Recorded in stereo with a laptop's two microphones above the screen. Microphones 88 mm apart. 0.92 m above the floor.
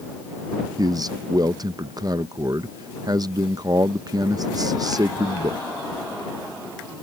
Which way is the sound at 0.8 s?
45° right (ahead or behind).